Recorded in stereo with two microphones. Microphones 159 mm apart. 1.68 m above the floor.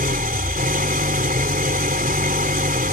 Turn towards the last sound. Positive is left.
turn(degrees=-65)  # may be behind; listen again after turning